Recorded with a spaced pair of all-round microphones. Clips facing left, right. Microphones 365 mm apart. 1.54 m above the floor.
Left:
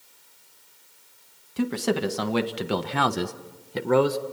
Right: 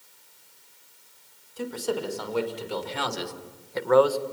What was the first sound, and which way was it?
A man speaking, 80° left.